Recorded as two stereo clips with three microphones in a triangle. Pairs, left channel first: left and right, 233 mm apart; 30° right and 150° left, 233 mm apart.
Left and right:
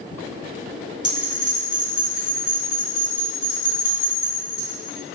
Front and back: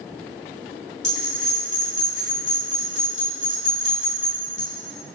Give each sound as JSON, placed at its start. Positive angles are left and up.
{"t": 1.0, "sound": "a bell", "azimuth_deg": -90, "distance_m": 1.6}